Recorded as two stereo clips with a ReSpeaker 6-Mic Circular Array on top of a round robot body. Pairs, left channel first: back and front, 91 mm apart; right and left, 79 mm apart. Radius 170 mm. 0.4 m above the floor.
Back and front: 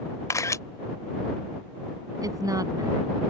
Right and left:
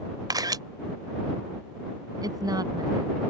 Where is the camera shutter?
125° left.